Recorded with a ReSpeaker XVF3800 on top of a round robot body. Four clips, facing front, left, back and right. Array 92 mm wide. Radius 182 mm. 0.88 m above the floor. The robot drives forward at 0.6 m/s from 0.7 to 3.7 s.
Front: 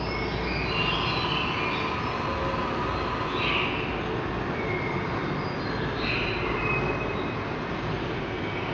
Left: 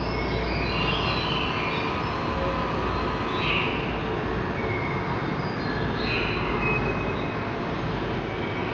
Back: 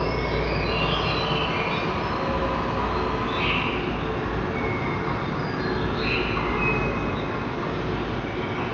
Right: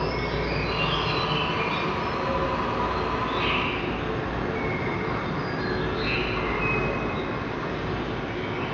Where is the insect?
175° right, 0.8 m; by 8.8 s straight behind, 2.5 m.